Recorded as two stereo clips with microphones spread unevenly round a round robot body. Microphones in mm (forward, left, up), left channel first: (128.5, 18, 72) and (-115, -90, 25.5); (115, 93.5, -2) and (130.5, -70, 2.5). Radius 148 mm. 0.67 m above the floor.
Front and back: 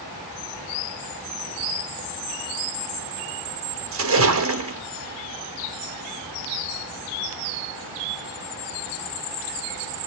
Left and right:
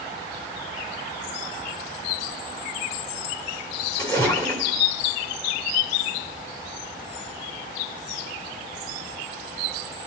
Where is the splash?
175° left, 2.5 m.